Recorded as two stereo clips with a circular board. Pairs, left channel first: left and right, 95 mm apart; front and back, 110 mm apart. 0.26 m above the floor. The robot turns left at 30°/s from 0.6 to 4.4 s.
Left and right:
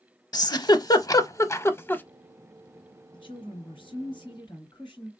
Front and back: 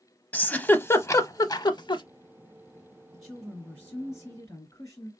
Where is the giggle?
70° left, 0.5 m; by 2.0 s 25° left, 0.5 m.